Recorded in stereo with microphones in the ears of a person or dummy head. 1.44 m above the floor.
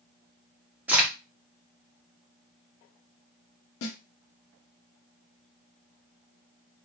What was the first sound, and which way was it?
A crack, centre (ahead or behind).